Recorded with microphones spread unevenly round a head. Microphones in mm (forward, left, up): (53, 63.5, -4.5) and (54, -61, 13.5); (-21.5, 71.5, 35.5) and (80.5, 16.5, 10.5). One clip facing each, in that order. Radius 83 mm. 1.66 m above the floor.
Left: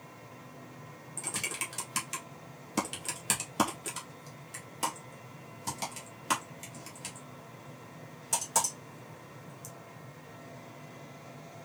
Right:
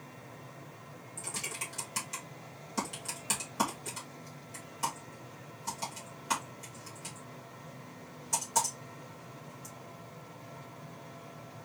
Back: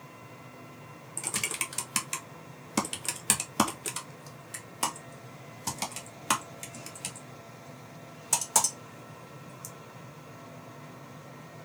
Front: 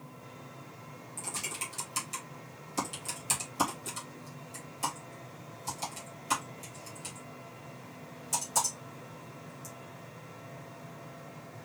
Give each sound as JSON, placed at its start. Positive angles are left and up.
{"t": 1.2, "sound": "typing on a keyboard", "azimuth_deg": 145, "distance_m": 1.2}